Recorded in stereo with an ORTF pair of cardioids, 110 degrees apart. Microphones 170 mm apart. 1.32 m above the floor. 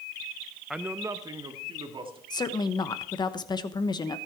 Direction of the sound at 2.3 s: 25° left.